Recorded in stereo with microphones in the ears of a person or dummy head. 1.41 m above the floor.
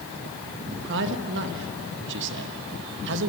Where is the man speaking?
70° right (ahead or behind), 1.8 m.